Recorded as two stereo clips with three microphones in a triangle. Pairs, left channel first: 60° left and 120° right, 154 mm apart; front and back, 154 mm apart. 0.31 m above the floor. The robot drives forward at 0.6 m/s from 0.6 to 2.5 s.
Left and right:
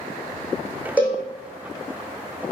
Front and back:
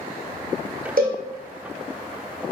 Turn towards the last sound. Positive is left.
turn(degrees=165)